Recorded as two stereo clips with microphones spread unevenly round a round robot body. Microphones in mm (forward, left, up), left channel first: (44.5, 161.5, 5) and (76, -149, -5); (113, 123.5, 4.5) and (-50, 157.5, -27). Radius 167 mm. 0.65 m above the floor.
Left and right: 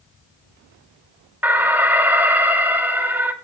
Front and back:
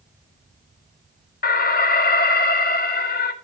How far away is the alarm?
About 1.6 m.